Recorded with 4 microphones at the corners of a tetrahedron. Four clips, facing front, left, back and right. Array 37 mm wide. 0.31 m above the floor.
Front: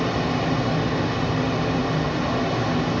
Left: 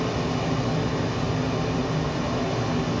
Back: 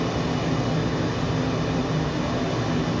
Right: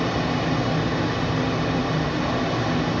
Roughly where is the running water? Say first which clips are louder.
Right 3 dB, front 2 dB; ahead right.